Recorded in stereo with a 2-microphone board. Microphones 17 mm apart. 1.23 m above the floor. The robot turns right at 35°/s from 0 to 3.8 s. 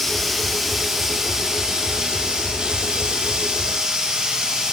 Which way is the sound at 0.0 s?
160° left.